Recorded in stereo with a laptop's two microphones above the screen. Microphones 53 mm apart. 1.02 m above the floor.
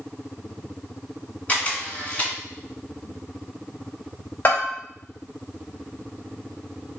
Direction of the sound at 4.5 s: 40° left (ahead or behind).